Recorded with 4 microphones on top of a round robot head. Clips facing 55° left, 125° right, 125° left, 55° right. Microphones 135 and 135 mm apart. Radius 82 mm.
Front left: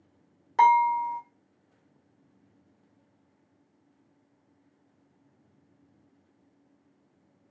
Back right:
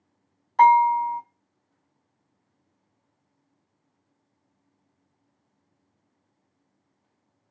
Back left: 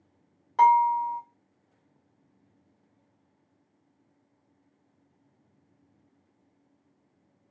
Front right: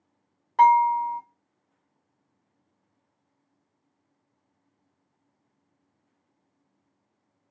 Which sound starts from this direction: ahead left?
Dishes clattering, at 0.6 s.